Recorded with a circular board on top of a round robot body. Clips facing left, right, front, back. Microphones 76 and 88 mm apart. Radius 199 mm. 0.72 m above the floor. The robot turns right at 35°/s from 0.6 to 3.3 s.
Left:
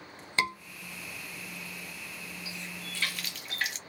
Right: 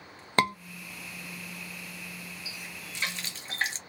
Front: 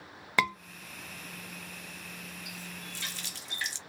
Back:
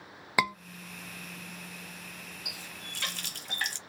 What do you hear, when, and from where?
0.4 s a scream: 105° right, 1.4 m
2.5 s a running tap: straight behind, 0.7 m; by 3.8 s 150° right, 0.7 m